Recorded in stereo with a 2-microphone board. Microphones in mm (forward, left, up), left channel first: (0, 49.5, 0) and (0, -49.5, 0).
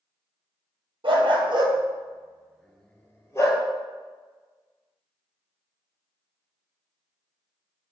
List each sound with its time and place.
1.0 s a dog barking: 60° right (ahead or behind), 1.3 m; by 3.6 s 35° left (ahead or behind), 1.2 m